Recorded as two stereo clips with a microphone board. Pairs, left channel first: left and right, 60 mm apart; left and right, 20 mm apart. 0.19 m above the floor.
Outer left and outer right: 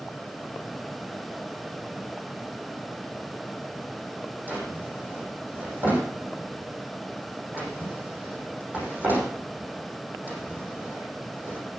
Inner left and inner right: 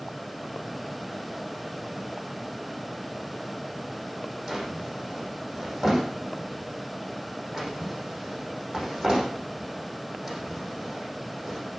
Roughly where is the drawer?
Right.